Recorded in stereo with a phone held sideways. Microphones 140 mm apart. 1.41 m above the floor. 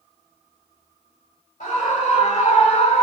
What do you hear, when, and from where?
1.6 s a scream: 80° left, 1.6 m; by 3.0 s 55° left (ahead or behind), 1.3 m